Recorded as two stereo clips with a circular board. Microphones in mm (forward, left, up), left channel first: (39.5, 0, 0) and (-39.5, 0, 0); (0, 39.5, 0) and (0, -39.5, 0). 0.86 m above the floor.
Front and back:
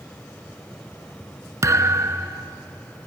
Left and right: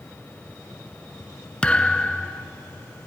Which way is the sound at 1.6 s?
160° left.